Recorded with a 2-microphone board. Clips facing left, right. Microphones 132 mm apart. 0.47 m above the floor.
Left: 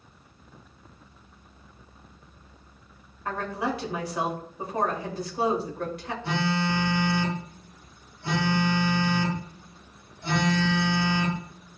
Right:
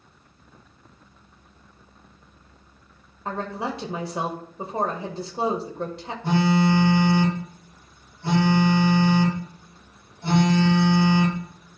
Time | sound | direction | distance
3.2 | a woman speaking | 25° right (ahead or behind) | 1.8 m
6.2 | a phone buzzing | 50° right (ahead or behind) | 5 m